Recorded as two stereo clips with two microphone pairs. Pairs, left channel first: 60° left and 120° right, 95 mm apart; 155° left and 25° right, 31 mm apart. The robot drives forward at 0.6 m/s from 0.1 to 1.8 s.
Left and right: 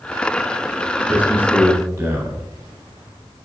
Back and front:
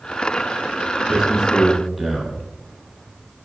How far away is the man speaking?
About 1.3 m.